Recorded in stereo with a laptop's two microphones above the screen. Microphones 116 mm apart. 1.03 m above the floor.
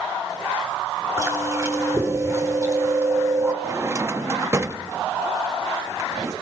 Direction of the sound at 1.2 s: 30° right (ahead or behind).